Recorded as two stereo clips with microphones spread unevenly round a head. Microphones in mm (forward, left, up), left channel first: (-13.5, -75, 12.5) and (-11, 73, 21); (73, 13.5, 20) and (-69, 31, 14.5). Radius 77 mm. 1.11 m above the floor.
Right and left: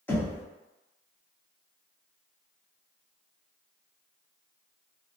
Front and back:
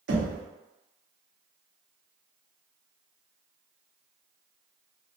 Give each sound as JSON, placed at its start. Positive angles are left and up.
{"t": 0.1, "sound": "knocking", "azimuth_deg": -170, "distance_m": 0.8}